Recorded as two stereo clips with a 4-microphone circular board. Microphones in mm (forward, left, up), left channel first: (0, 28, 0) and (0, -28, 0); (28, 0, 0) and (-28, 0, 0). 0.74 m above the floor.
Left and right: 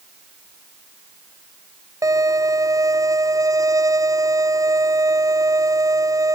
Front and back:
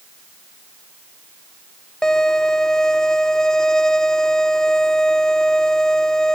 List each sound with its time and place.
2.0 s a violin: 80° right